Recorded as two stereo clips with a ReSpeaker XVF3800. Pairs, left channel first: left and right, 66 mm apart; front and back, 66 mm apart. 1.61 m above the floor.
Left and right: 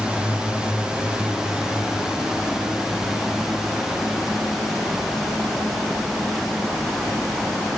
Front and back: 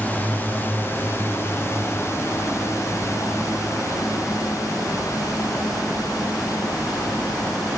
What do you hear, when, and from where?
0.0 s a drone: 30° right; by 7.8 s 5° right